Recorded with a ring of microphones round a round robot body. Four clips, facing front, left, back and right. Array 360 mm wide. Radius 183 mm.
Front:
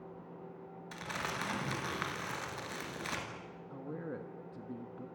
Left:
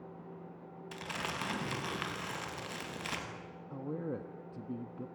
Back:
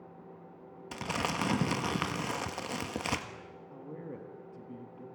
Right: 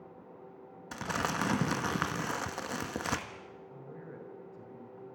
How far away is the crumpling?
About 1.7 m.